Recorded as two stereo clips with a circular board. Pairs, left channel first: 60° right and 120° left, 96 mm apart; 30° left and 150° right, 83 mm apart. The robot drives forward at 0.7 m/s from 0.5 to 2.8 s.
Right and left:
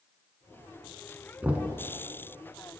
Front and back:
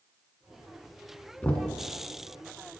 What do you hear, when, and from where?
1.4 s knocking: 70° left, 0.9 m; by 1.8 s 100° left, 0.9 m